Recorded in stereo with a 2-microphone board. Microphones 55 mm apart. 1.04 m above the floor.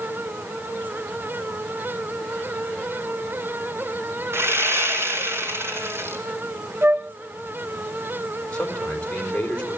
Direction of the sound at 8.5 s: 20° left (ahead or behind).